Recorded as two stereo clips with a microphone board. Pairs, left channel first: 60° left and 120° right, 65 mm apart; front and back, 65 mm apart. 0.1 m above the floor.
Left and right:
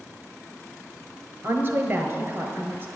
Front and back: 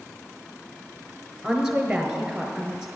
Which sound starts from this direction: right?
A woman speaking, at 1.4 s.